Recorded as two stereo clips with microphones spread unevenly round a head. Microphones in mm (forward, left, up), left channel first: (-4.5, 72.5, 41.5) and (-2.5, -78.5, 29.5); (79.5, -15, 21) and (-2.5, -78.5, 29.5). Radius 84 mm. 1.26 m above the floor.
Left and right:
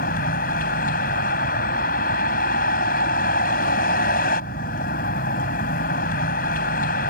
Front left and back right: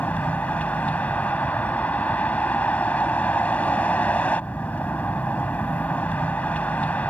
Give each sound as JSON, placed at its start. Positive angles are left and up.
{"t": 0.0, "sound": "a vehicle", "azimuth_deg": 120}